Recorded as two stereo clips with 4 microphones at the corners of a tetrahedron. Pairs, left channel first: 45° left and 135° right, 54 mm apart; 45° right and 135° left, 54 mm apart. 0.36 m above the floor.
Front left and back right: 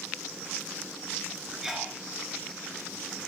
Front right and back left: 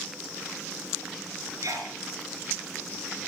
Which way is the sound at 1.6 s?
150° left.